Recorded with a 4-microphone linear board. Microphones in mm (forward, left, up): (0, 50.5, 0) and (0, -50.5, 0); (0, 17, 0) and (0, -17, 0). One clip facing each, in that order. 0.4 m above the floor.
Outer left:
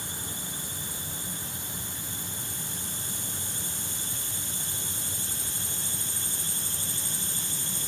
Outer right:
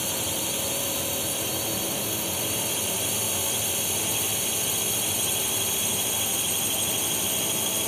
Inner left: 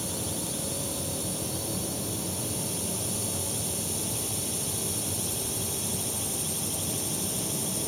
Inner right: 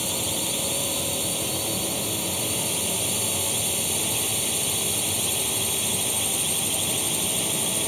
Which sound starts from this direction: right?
A drone, at 0.0 s.